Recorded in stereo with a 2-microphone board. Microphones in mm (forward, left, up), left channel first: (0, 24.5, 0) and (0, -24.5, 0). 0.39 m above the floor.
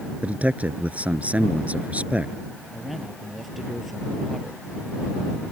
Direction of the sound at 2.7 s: Centre (ahead or behind).